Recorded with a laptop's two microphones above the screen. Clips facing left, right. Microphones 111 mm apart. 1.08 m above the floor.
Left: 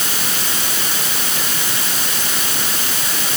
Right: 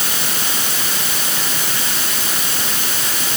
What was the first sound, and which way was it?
Only background noise.